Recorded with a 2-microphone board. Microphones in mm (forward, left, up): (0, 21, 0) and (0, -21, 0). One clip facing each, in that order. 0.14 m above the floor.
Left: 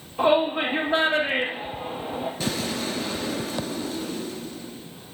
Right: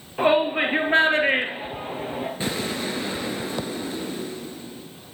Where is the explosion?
25° right (ahead or behind), 1.9 m.